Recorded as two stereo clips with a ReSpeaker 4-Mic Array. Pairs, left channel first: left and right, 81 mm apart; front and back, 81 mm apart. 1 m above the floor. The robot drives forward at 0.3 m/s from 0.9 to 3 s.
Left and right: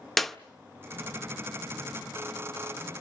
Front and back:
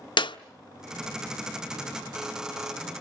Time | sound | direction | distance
0.2 | a clap | 5° left | 0.5 m